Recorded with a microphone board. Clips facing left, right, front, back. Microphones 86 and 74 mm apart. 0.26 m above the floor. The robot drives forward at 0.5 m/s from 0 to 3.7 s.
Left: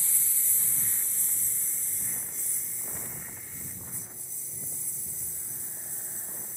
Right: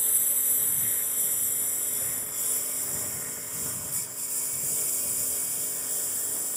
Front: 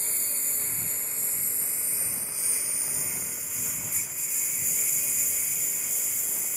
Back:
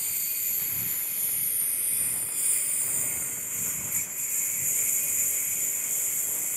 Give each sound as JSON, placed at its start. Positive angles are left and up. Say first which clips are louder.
{"t": 0.0, "sound": "a lawn mower", "louder": "right 5 dB, front 3 dB", "azimuth_deg": -55}